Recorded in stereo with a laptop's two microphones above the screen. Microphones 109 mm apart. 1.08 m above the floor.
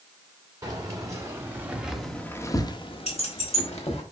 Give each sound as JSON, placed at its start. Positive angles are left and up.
{"t": 0.6, "sound": "keys jangling", "side_deg": -35, "distance_m": 1.9}
{"t": 3.1, "sound": "keys jangling", "side_deg": 75, "distance_m": 1.6}